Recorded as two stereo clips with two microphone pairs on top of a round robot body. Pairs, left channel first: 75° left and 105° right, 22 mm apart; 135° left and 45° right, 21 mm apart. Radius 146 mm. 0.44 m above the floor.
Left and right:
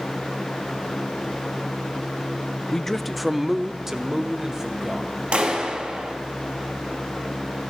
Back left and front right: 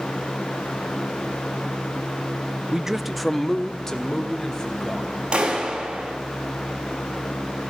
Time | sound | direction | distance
2.7 | a man speaking | 10° left | 0.9 m
5.3 | a clap | 90° right | 4 m